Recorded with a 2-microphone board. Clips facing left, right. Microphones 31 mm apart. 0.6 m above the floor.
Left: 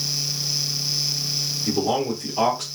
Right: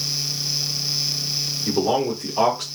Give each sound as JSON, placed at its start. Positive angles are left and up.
{"t": 1.7, "sound": "a man speaking", "side_deg": -15, "distance_m": 1.2}